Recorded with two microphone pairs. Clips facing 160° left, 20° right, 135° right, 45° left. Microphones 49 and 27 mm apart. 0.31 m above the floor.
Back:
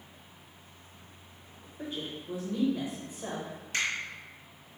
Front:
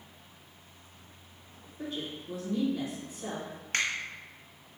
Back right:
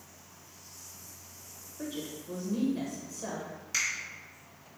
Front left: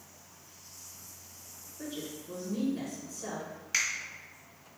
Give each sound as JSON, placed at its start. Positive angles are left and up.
{"t": 1.8, "sound": "a woman speaking", "azimuth_deg": -175, "distance_m": 1.1}
{"t": 3.7, "sound": "a finger snap", "azimuth_deg": -10, "distance_m": 1.2}